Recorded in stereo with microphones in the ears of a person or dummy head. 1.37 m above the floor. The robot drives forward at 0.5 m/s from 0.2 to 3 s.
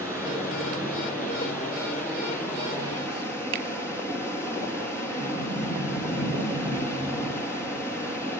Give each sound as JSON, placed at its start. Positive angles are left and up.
{"t": 0.0, "sound": "running water", "side_deg": -15, "distance_m": 4.5}
{"t": 3.5, "sound": "a finger snap", "side_deg": -65, "distance_m": 1.7}
{"t": 5.2, "sound": "a sliding door", "side_deg": 15, "distance_m": 8.0}